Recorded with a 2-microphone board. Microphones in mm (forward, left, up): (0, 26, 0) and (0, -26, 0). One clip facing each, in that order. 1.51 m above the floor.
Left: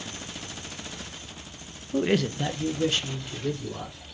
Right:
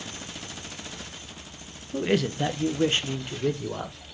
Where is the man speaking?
15° left (ahead or behind), 0.5 m; by 4.0 s 45° right (ahead or behind), 1.3 m.